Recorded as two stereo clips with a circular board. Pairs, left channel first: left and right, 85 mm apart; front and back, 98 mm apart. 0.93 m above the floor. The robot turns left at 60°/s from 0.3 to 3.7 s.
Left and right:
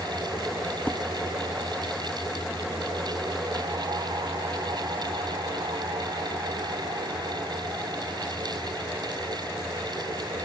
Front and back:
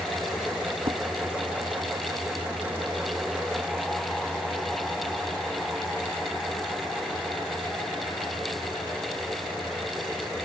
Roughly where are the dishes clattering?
Behind.